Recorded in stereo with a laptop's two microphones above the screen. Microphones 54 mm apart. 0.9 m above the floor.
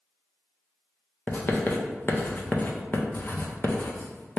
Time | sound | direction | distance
1.3 | writing | 40° left (ahead or behind) | 0.5 m